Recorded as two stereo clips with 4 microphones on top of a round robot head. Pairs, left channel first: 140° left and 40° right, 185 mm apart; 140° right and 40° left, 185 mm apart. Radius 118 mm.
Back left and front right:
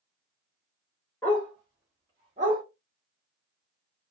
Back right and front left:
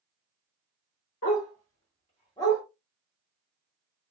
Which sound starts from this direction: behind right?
A dog barking, at 1.2 s.